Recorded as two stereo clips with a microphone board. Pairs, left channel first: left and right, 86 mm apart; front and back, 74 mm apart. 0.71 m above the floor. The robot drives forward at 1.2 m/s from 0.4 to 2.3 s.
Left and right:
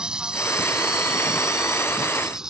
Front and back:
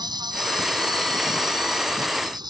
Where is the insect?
170° right; by 2.5 s 175° right.